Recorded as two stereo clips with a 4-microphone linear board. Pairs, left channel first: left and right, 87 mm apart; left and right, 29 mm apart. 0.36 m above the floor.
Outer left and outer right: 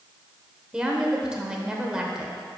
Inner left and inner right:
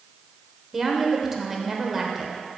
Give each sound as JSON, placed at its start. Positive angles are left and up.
{"t": 0.7, "sound": "a woman speaking", "side_deg": -10, "distance_m": 0.9}